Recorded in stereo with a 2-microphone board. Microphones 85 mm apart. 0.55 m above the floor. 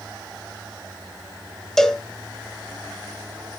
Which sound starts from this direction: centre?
A cowbell, at 1.8 s.